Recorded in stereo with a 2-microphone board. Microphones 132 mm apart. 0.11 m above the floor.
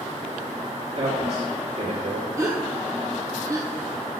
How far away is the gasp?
About 1.7 m.